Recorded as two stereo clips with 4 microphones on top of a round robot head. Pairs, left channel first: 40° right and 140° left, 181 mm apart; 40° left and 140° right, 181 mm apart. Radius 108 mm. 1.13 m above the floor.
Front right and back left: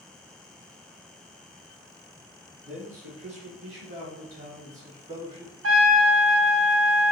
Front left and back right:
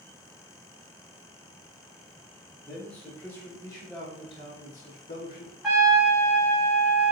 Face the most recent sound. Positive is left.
turn(degrees=135)